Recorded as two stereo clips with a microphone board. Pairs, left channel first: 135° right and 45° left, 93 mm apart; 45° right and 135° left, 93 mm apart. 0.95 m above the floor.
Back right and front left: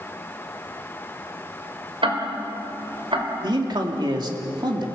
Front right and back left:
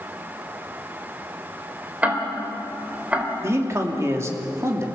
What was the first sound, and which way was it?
Ticking, 60° left.